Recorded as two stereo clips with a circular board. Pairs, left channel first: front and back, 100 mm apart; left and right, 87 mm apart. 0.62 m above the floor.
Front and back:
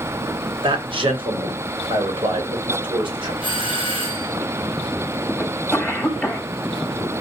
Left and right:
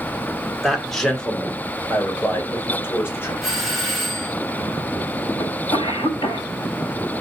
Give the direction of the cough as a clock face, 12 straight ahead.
9 o'clock.